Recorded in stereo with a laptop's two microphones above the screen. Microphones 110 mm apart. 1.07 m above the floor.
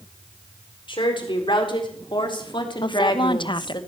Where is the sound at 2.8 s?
45° left (ahead or behind), 0.9 m.